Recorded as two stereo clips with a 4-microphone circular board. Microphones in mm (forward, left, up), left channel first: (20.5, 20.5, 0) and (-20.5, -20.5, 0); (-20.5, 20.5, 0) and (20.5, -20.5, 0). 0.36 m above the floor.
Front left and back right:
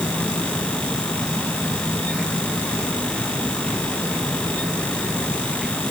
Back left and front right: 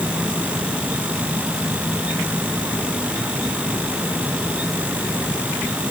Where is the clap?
I don't hear a clap.